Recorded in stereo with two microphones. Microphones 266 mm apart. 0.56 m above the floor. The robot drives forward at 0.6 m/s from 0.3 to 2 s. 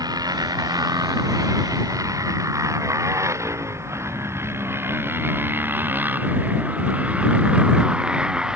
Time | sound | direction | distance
0.0 | a motorcycle | 15° right (ahead or behind) | ?